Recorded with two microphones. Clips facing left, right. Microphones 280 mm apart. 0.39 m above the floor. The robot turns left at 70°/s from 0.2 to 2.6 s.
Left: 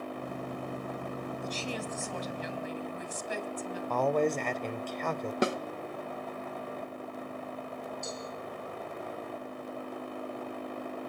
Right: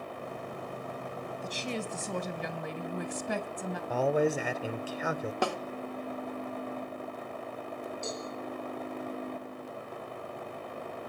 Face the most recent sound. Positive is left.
turn(degrees=-70)  # may be behind; listen again after turning